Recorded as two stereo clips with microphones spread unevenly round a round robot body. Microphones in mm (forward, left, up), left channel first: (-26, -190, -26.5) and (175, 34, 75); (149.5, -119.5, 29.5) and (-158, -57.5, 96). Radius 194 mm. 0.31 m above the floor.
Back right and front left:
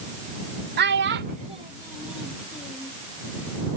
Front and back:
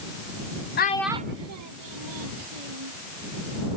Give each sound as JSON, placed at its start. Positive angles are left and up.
{"t": 0.8, "sound": "a child speaking", "azimuth_deg": -20}